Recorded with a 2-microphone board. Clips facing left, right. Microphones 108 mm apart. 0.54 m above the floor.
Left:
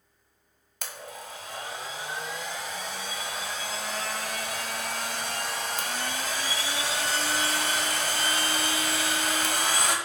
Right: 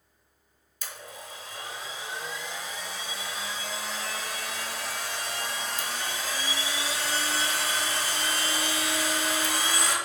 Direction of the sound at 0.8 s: 60° left (ahead or behind).